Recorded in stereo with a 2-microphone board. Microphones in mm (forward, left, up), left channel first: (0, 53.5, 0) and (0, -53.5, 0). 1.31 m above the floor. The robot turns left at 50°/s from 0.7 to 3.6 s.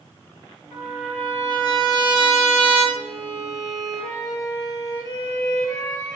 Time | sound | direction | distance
0.7 | a trumpet | 165° right | 5 m
3.0 | a violin | 175° left | 2 m